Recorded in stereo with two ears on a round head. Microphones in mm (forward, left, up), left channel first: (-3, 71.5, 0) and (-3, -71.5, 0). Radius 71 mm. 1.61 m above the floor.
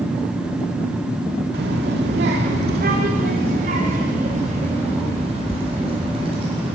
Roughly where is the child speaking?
Right.